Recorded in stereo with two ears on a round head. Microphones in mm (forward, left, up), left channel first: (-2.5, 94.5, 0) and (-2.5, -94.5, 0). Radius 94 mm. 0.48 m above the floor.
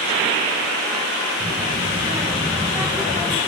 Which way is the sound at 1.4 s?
35° right (ahead or behind).